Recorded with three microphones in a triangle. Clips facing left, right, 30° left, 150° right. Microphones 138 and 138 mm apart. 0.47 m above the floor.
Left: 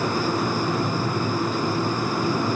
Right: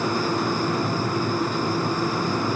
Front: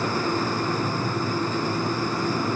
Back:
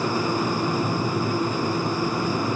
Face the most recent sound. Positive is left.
No sound to turn to.